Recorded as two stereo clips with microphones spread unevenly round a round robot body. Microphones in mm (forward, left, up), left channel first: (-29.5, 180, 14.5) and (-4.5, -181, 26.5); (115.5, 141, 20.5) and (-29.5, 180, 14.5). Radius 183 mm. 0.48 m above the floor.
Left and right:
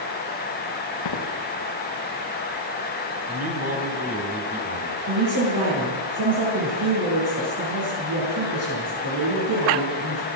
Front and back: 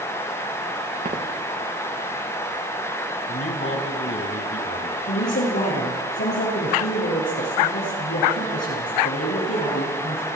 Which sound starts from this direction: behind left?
Footsteps, at 1.1 s.